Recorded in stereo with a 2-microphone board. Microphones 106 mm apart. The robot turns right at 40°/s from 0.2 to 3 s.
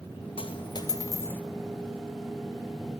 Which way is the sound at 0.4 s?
120° left.